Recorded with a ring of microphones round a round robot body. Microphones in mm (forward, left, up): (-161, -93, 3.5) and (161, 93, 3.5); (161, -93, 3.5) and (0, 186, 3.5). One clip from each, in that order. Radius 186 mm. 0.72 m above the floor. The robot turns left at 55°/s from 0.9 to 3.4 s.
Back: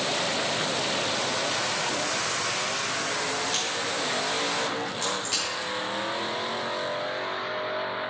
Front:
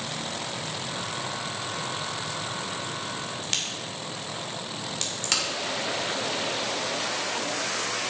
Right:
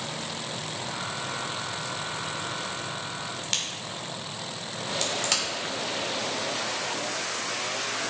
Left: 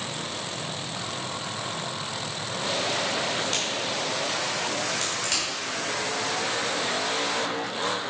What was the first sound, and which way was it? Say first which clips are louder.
A crack: back 3 dB, left 4 dB; 5° right.